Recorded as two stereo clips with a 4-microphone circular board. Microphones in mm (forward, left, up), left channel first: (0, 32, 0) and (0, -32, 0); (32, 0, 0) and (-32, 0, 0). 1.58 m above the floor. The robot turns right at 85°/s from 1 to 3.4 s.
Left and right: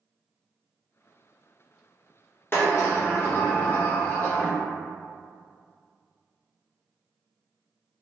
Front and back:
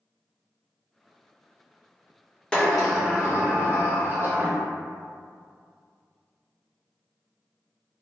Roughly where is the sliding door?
Ahead left.